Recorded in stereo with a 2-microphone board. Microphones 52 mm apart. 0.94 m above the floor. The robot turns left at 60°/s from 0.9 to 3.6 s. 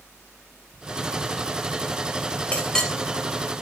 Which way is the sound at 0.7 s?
20° left (ahead or behind).